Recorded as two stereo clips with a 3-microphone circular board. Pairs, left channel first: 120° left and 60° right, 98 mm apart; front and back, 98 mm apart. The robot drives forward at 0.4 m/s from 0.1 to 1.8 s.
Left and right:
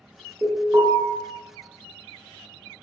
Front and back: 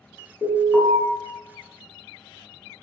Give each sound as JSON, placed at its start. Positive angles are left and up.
{"t": 0.4, "sound": "an alarm", "azimuth_deg": -55, "distance_m": 1.3}